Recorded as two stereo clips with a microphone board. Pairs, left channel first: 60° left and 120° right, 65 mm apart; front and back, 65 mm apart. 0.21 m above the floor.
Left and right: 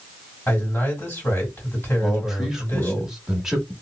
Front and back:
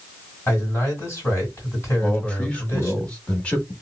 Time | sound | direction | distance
0.5 | a man speaking | 20° left | 2.0 m
2.0 | a man speaking | 40° right | 1.0 m